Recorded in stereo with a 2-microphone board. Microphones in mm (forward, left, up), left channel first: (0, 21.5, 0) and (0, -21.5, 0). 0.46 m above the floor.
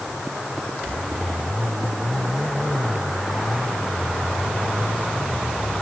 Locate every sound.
Only background noise.